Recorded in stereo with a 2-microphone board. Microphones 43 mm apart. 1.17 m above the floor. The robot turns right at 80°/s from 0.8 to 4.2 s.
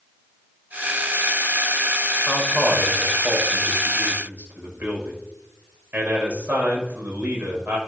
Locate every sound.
2.3 s a man speaking: 155° left, 6.5 m; by 7.8 s 50° right, 6.5 m